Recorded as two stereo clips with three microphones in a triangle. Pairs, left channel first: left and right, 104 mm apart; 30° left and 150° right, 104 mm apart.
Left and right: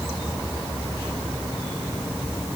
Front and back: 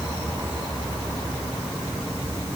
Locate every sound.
Only background noise.